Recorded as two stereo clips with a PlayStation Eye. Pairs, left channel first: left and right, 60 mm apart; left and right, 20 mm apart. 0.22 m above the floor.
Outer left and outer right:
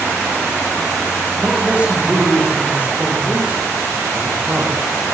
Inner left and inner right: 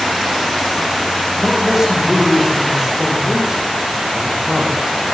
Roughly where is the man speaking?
Right.